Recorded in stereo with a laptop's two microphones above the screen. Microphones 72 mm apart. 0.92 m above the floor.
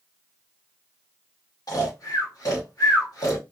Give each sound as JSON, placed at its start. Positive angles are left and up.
{"t": 1.7, "sound": "snoring", "side_deg": 55, "distance_m": 1.6}